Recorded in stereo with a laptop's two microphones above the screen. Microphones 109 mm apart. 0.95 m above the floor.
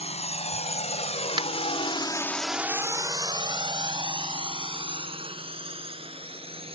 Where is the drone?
80° left; by 6.8 s 60° right (ahead or behind).